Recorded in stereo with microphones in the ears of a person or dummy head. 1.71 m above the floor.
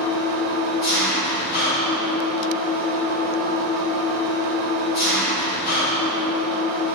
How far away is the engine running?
About 1.8 m.